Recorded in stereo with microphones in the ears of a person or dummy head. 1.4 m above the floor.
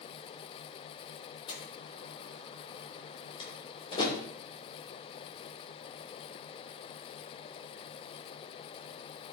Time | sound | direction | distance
1.5 | a door slam | 25° left (ahead or behind) | 2.5 m